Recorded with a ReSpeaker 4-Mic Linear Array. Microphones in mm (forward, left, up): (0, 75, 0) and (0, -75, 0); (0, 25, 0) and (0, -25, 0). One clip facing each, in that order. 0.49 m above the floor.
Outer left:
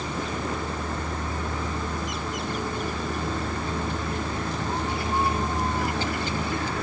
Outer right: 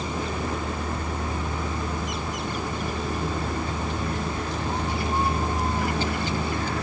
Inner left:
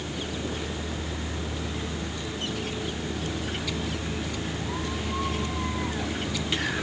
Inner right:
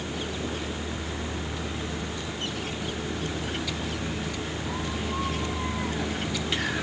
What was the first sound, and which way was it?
Only background noise.